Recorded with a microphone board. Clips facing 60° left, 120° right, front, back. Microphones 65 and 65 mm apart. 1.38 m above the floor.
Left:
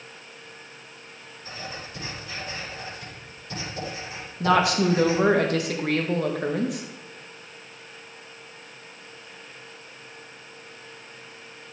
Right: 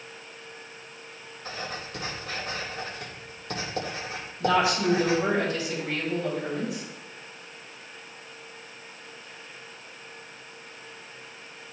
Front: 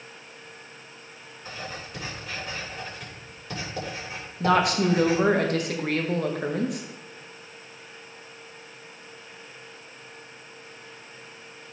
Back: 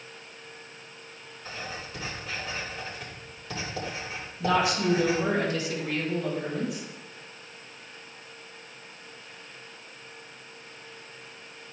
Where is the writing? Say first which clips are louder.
Right 2 dB, front 1 dB; 90° right, 3.5 m.